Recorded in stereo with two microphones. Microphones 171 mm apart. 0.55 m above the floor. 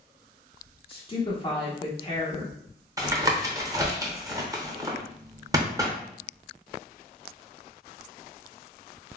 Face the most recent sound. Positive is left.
turn(degrees=-20)  # may be behind; listen again after turning